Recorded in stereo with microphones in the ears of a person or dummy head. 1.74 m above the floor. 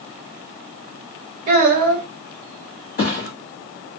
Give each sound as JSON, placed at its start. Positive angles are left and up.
{"t": 1.5, "sound": "a child speaking", "side_deg": -20, "distance_m": 0.6}
{"t": 3.0, "sound": "a thud", "side_deg": 45, "distance_m": 1.5}